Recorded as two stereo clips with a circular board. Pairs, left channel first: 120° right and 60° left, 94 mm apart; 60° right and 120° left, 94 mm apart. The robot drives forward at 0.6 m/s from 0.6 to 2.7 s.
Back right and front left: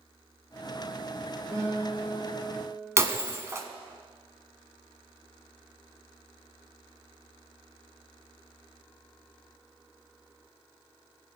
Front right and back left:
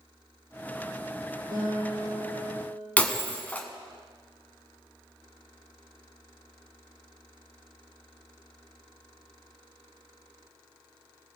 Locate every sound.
1.5 s a guitar: 115° left, 5 m; by 2.9 s 120° left, 5.5 m
3.0 s breaking glass: 10° left, 1.0 m